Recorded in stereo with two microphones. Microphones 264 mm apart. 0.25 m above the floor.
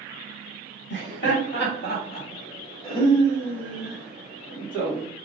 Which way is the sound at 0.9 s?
45° left (ahead or behind).